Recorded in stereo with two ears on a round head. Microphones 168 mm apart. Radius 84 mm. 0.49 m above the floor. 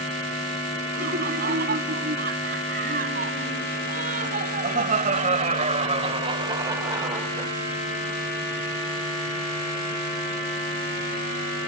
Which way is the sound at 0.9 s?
55° right (ahead or behind).